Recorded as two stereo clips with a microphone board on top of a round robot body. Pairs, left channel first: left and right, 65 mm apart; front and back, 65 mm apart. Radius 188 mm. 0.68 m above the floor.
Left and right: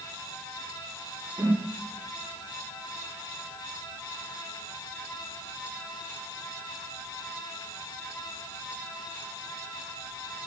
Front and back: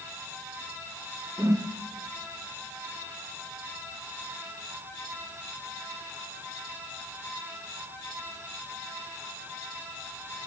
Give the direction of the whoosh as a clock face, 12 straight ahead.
5 o'clock.